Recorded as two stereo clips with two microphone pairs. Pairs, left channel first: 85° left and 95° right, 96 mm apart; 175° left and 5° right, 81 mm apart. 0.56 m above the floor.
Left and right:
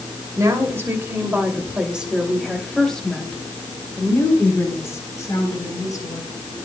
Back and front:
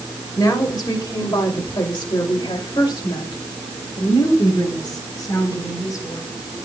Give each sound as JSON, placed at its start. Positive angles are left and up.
{"t": 0.4, "sound": "a woman speaking", "azimuth_deg": -150, "distance_m": 2.5}